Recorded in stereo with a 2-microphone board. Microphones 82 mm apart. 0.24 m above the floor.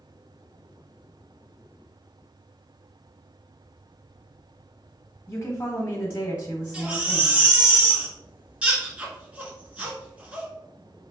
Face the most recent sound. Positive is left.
turn(degrees=-15)  # may be behind; listen again after turning